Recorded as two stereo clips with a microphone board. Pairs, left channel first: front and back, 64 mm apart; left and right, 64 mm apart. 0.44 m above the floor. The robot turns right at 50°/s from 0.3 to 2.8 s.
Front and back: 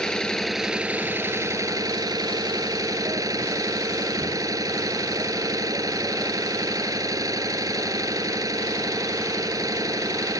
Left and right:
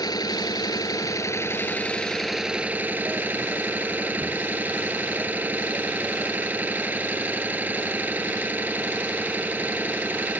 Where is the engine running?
80° left; by 10.4 s 155° right.